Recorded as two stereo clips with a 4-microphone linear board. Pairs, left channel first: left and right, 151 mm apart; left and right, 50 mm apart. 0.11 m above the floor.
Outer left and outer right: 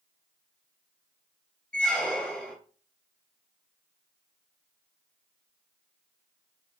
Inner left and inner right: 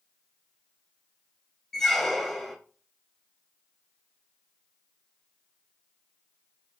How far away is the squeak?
About 0.7 m.